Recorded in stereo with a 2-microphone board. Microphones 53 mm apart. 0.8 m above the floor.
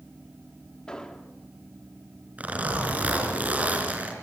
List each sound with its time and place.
0.9 s an explosion: 15° left (ahead or behind), 1.8 m
2.4 s a zipper: 25° right (ahead or behind), 4.5 m